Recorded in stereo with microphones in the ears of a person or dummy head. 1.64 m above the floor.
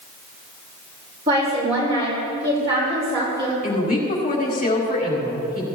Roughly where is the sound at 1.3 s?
Right.